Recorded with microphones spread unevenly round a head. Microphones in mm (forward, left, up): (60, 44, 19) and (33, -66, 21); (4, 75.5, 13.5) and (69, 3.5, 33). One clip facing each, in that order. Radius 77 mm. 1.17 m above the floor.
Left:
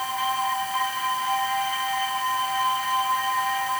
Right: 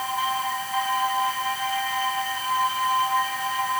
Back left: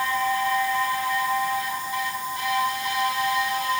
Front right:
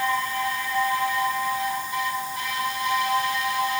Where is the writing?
I don't hear writing.